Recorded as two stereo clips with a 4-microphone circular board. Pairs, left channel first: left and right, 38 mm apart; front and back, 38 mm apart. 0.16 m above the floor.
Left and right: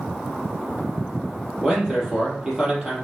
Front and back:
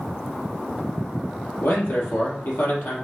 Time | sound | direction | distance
1.6 | a man speaking | 20° right | 3.5 m